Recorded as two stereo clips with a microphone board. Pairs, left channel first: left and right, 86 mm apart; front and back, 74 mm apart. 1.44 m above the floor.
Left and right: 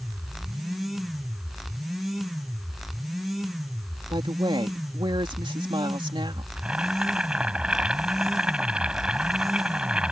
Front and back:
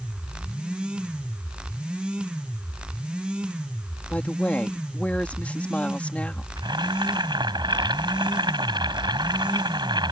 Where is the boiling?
170° right.